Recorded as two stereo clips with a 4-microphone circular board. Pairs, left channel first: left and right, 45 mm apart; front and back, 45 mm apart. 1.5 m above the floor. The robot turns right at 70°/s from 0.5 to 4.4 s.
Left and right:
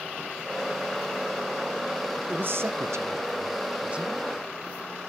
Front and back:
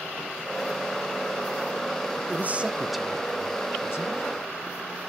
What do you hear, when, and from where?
2.3 s a man speaking: 140° right, 1.3 m; by 4.2 s 5° right, 1.3 m